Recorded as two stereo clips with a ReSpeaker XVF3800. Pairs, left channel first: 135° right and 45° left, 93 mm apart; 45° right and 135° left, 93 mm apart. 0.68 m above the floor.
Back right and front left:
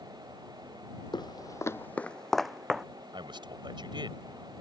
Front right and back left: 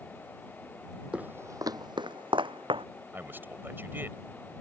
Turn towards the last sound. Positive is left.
turn(degrees=70)